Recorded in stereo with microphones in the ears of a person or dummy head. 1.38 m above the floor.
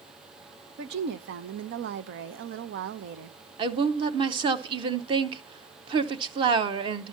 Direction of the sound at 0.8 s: 70° right (ahead or behind).